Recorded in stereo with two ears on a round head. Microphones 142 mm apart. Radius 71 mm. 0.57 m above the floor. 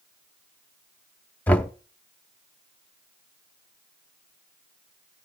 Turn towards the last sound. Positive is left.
turn(degrees=10)  # may be behind; listen again after turning